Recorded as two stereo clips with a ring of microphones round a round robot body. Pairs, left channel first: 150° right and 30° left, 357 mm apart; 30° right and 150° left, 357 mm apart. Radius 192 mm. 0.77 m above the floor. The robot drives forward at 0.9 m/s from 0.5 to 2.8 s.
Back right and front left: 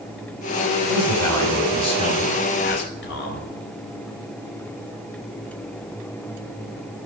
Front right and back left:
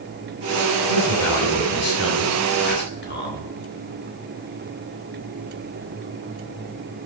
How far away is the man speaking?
About 4 m.